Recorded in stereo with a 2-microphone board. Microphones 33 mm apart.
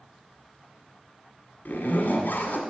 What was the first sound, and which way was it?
A zipper, 70° left (ahead or behind).